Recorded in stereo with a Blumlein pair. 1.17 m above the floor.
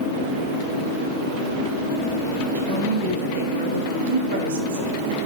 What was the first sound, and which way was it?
A woman speaking, 60° right.